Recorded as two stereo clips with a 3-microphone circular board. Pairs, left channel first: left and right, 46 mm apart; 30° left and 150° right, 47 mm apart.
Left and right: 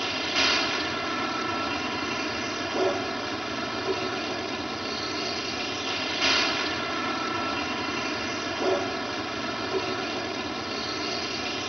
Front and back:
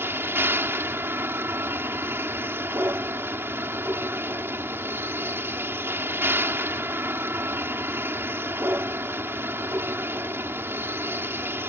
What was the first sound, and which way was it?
A vehicle, 175° right.